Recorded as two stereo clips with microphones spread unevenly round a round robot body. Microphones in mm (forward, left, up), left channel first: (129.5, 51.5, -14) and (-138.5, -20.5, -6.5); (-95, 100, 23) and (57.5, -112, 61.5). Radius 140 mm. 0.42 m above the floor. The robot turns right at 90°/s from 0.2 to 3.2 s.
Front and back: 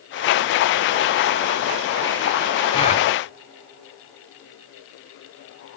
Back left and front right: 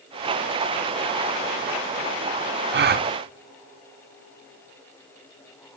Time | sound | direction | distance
2.7 | a gasp | 40° right | 0.6 m